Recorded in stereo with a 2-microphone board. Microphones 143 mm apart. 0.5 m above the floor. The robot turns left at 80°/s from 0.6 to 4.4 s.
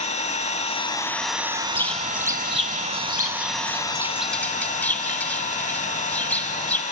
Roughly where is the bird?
Ahead.